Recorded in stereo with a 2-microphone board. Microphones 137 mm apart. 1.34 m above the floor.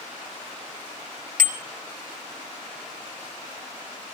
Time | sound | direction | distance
1.4 | a bicycle bell | 80° right | 3 m